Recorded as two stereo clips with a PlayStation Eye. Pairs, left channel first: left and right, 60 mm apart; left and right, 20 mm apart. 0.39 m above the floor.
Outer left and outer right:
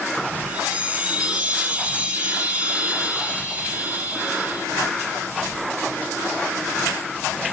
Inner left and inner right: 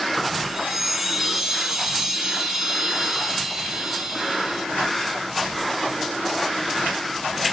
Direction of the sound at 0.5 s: 20° right (ahead or behind).